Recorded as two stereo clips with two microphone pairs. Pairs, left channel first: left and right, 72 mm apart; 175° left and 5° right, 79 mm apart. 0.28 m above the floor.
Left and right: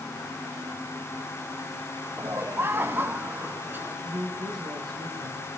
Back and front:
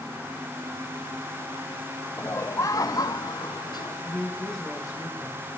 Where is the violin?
I don't hear a violin.